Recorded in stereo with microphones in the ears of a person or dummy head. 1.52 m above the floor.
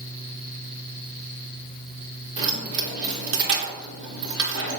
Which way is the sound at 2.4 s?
70° right (ahead or behind).